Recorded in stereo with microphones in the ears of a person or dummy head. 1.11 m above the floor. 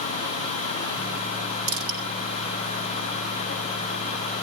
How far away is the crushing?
About 7.5 m.